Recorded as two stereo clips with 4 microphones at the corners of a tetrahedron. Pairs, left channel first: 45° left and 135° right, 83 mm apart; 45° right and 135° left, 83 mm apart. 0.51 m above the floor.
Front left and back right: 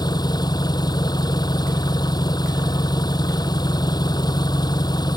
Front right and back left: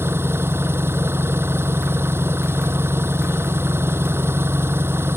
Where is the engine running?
75° left.